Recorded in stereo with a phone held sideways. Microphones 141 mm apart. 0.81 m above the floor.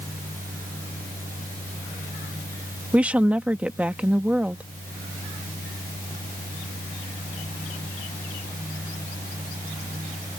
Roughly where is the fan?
Right.